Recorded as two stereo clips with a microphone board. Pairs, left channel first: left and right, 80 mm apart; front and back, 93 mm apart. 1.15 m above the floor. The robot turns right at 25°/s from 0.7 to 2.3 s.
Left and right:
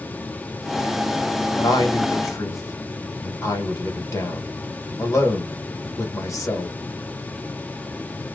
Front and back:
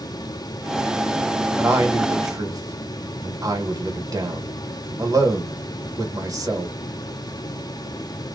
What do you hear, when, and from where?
1.6 s a man speaking: 115° left, 1.4 m; by 6.8 s 135° left, 1.4 m